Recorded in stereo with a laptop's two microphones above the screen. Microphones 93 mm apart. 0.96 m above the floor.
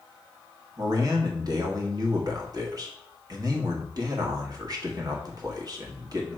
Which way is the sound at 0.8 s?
40° right (ahead or behind).